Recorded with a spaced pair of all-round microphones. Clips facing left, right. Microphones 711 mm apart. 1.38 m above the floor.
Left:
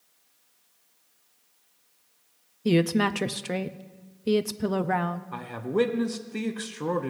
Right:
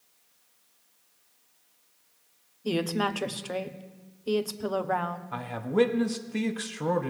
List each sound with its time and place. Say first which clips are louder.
2.6 s a woman speaking: left 6 dB; 55° left (ahead or behind), 0.6 m
5.3 s a man speaking: right 1 dB; 20° right (ahead or behind), 0.6 m